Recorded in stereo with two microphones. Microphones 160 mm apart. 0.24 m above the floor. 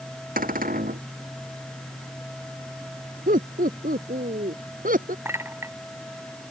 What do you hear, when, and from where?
0.4 s a cupboard door: 70° right (ahead or behind)
3.3 s laughter: 70° right (ahead or behind)
5.2 s a clink: 15° right (ahead or behind)